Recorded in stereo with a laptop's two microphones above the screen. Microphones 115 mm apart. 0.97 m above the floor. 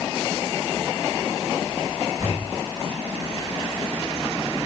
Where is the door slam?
35° right (ahead or behind), 8.5 m.